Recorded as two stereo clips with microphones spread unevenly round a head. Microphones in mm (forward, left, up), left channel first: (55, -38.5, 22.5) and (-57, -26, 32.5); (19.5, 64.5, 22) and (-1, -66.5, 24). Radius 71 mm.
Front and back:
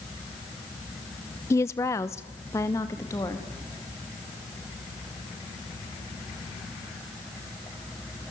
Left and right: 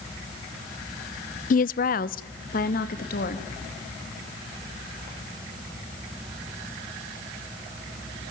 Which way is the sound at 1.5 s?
60° left.